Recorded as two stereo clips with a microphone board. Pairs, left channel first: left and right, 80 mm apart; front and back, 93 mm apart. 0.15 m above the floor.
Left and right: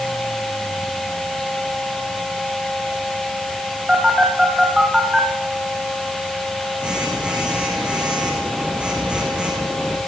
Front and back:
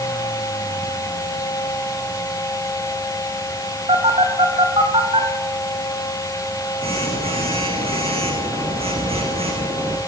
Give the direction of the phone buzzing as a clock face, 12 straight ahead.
6 o'clock.